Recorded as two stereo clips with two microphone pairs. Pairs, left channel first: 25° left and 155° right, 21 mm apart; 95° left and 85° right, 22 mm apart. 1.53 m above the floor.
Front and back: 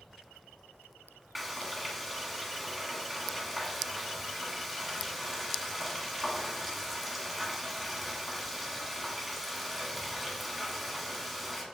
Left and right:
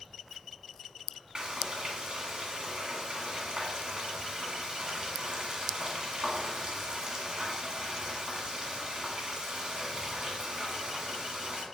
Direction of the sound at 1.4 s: 75° right.